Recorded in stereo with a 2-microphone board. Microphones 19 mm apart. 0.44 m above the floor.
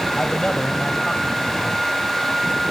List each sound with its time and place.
0.2 s a man speaking: 60° left (ahead or behind), 1.9 m